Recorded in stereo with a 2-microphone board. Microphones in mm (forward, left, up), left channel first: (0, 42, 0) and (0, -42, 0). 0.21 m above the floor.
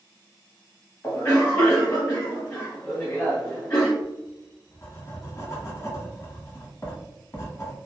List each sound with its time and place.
1.0 s a cough: 20° left (ahead or behind), 1.2 m
4.0 s writing: 30° left (ahead or behind), 1.2 m